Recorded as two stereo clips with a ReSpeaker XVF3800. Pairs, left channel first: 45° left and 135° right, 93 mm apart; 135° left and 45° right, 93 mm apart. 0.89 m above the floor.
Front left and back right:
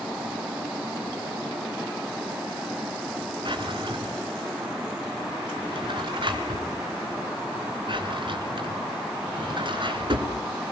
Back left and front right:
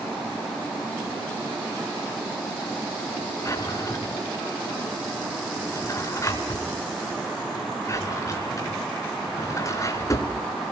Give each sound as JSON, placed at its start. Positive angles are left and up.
{"t": 3.5, "sound": "a drawer", "azimuth_deg": -170, "distance_m": 4.0}